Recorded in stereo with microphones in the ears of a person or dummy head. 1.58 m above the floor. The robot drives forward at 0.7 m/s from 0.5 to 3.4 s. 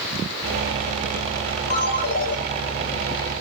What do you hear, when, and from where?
1.7 s a ringtone: 55° left (ahead or behind), 6.5 m; by 2.4 s 60° left (ahead or behind), 6.5 m